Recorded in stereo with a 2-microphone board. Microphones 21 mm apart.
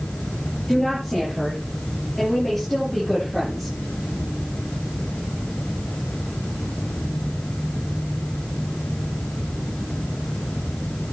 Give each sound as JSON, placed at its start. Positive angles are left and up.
{"t": 0.7, "sound": "a woman speaking", "side_deg": 5, "distance_m": 8.0}